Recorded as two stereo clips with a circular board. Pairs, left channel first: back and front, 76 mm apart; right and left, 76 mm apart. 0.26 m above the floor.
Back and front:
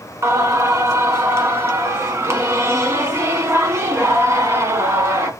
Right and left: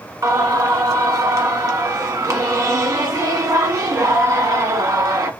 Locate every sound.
0.2 s singing: 50° left, 1.1 m